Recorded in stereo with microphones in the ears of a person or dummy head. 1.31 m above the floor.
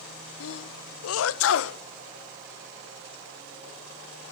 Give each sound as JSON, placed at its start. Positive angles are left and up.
{"t": 0.4, "sound": "a sneeze", "side_deg": 80, "distance_m": 0.9}